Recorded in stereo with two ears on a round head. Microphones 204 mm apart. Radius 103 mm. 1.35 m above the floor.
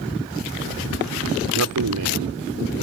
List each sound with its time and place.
1.5 s a man speaking: 75° right (ahead or behind)